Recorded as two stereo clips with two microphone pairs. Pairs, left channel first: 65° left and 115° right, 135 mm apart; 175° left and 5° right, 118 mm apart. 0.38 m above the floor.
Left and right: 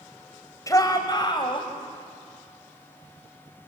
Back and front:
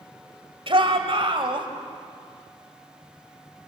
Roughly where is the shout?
Ahead.